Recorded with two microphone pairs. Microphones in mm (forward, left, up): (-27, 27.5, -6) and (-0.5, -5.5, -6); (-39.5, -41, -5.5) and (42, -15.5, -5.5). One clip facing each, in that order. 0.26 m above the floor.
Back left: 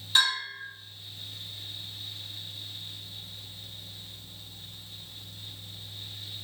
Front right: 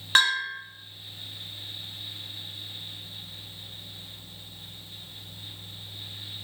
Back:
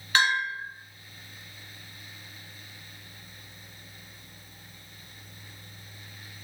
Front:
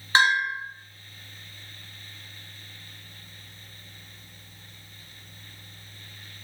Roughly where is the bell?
Ahead right.